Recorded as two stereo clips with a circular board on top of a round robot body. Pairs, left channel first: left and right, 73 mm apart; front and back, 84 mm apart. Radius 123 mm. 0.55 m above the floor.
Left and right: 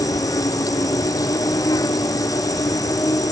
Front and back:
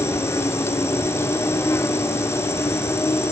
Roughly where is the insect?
Ahead left.